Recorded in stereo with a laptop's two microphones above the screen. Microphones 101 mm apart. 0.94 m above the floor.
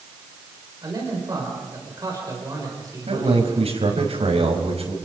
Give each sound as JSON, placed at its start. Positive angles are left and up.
{"t": 0.8, "sound": "a man speaking", "side_deg": -35, "distance_m": 4.5}
{"t": 3.1, "sound": "a man speaking", "side_deg": -80, "distance_m": 5.0}